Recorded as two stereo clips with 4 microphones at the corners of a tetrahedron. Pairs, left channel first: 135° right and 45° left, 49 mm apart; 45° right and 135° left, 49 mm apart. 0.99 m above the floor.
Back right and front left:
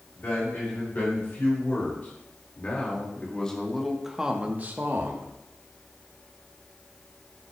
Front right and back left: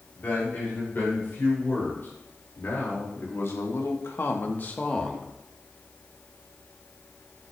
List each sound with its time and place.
0.2 s a man speaking: 90° right, 4.5 m; by 5.3 s 30° left, 1.4 m